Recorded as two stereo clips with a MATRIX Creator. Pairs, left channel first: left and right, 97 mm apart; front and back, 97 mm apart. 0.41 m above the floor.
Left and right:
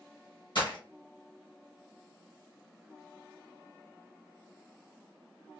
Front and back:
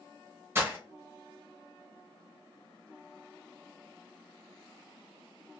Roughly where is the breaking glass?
Behind left.